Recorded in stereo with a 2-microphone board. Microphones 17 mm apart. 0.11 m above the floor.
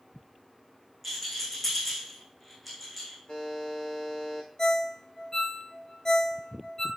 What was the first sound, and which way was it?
A rattle, 10° left (ahead or behind).